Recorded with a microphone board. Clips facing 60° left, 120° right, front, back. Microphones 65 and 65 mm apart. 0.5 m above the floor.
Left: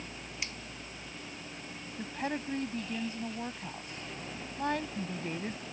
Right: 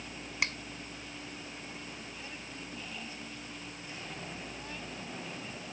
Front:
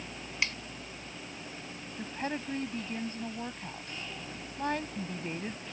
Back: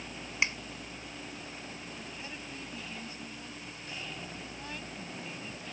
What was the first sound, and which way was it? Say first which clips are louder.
A finger snap: right 9 dB, back 2 dB; 115° right.